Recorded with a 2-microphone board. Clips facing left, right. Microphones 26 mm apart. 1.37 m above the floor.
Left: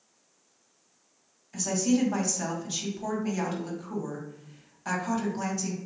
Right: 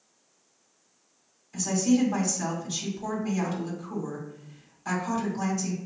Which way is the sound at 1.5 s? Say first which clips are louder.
Right 2 dB; 15° left (ahead or behind).